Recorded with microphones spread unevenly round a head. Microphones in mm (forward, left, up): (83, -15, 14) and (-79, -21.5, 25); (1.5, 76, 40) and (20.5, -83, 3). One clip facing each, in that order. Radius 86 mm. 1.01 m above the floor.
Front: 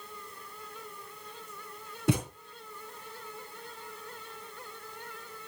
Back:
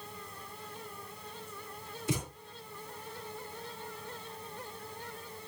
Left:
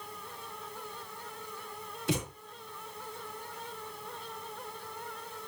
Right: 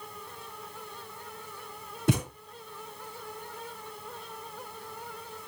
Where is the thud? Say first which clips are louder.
Front 6 dB, right 5 dB; 35° right, 3.5 m.